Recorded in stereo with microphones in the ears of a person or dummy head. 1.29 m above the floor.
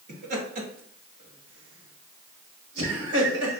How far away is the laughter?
About 2.5 m.